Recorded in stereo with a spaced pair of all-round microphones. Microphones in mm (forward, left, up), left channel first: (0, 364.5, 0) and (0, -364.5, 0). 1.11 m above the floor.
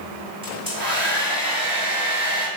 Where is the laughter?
I don't hear laughter.